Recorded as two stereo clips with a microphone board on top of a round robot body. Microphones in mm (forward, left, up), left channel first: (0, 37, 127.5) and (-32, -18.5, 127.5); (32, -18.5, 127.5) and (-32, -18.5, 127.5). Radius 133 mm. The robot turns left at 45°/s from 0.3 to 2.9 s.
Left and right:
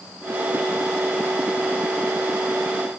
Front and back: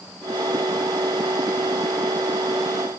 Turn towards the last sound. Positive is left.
No sound to turn to.